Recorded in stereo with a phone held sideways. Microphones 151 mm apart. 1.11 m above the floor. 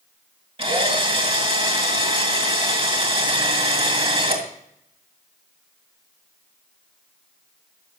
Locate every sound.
0.6 s a drill: 35° right (ahead or behind), 2.5 m